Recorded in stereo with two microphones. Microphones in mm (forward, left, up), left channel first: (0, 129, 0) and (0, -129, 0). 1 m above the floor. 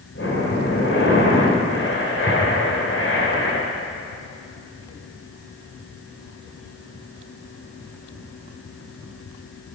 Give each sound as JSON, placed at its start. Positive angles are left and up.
{"t": 0.1, "sound": "breathing", "side_deg": 55, "distance_m": 3.0}